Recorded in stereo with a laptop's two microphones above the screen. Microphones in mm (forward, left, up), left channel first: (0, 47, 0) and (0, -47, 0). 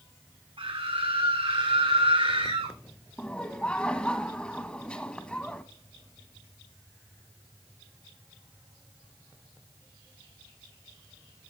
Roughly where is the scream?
Right.